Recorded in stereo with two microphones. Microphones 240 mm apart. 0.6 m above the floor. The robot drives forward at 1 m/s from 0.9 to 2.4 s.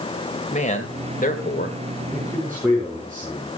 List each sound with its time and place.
0.5 s a man speaking: 30° left (ahead or behind), 2.5 m; by 1.8 s 45° left (ahead or behind), 1.9 m
2.1 s a man speaking: 10° right (ahead or behind), 7.5 m